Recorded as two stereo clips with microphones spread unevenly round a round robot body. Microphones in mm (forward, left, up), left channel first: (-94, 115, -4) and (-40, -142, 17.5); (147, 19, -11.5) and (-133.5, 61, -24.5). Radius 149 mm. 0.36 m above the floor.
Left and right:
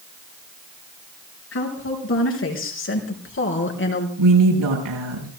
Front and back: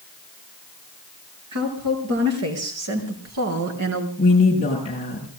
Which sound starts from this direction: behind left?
A woman speaking, at 1.5 s.